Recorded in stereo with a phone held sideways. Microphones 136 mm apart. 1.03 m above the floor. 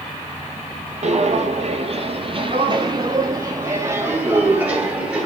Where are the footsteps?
55° right (ahead or behind), 1.7 m; by 5.3 s 5° right (ahead or behind), 2.5 m.